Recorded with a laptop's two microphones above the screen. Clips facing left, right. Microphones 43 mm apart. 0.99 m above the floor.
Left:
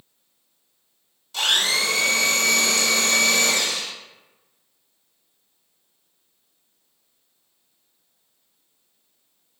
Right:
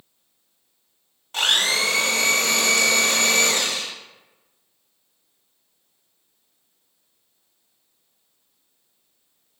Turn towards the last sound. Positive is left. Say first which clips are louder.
# right 1 dB
turn(degrees=-50)  # may be behind; listen again after turning